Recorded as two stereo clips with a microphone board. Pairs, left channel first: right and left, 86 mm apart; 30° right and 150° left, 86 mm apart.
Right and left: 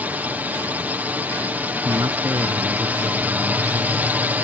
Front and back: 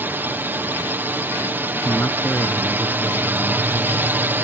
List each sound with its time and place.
0.0 s a drone: 130° left
1.9 s a man speaking: 35° left